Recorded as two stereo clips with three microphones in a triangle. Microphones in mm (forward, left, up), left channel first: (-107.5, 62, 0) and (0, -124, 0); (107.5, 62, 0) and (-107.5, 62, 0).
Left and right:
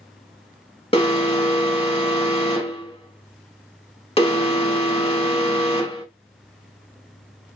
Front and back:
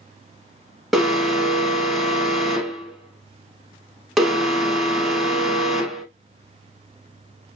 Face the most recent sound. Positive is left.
turn(degrees=90)